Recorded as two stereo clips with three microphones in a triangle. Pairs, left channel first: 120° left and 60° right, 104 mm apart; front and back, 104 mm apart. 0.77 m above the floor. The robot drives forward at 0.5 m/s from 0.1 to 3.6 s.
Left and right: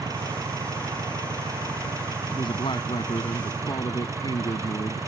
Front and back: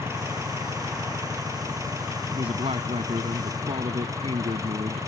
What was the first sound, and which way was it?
An engine running, 115° right.